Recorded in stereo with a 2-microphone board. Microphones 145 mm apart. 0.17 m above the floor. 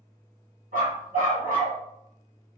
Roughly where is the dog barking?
Right.